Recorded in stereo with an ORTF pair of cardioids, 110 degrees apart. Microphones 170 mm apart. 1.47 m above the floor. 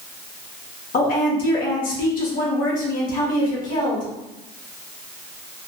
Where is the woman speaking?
55° left, 1.0 m.